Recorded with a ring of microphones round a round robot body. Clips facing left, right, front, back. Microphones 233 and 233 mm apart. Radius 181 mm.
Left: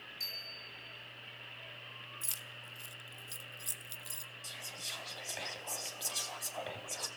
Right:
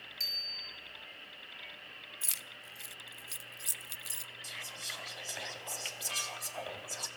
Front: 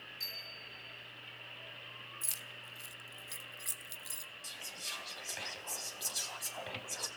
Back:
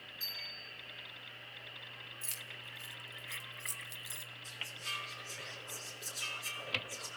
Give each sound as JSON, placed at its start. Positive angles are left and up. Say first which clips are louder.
{"t": 0.2, "sound": "a bicycle bell", "louder": "left 1 dB, front 1 dB", "azimuth_deg": -65, "distance_m": 7.0}
{"t": 2.2, "sound": "keys jangling", "louder": "even, even", "azimuth_deg": -60, "distance_m": 0.7}
{"t": 4.4, "sound": "whispering", "louder": "left 1 dB, front 2 dB", "azimuth_deg": -5, "distance_m": 3.5}